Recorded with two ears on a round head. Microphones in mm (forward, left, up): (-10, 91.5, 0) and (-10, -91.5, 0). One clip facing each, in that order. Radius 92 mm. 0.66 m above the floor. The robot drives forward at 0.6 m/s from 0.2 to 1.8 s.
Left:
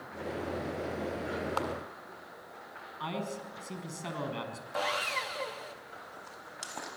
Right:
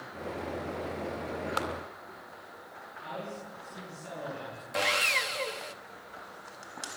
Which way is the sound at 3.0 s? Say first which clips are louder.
Left 3 dB; 80° left.